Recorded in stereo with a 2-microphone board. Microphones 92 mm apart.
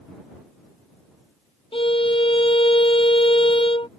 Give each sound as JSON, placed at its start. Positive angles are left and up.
{"t": 1.7, "sound": "a violin", "side_deg": 85}